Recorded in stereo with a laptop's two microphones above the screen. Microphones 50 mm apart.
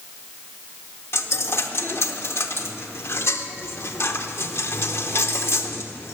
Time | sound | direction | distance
1.1 | a dropped coin | 55° left (ahead or behind) | 0.8 m